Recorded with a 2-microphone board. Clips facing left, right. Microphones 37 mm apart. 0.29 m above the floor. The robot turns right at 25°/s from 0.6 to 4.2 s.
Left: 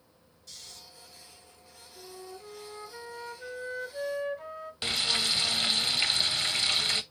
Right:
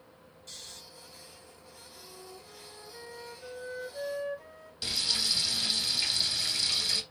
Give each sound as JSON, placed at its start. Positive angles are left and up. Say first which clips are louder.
{"t": 0.5, "sound": "snoring", "louder": "right 1 dB", "side_deg": -50, "distance_m": 2.0}
{"t": 1.9, "sound": "a flute", "louder": "left 6 dB", "azimuth_deg": 60, "distance_m": 0.6}
{"t": 4.8, "sound": "frying", "louder": "left 3 dB", "side_deg": 40, "distance_m": 0.5}